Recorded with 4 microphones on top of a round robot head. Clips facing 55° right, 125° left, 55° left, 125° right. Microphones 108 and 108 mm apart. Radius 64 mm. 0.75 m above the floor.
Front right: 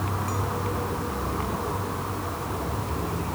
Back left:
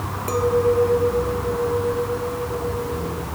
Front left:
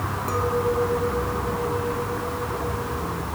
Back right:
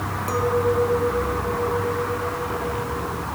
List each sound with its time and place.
0.3 s a clink: 160° left